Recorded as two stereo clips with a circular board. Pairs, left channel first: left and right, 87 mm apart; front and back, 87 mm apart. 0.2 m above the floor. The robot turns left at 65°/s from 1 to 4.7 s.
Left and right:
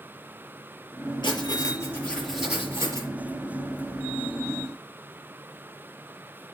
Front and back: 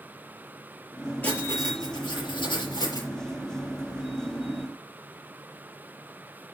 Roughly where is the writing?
Ahead left.